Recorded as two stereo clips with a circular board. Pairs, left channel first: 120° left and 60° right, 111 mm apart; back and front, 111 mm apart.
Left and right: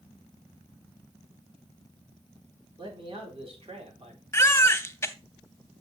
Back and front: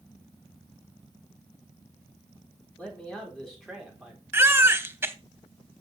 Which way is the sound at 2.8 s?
100° right.